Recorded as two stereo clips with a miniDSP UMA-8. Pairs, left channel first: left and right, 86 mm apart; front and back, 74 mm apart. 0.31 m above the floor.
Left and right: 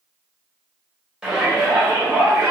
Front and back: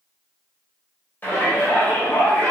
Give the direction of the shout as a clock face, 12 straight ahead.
1 o'clock.